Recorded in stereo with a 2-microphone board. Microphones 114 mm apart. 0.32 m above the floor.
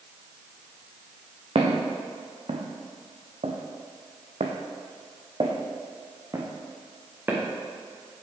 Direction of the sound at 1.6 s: 50° right (ahead or behind).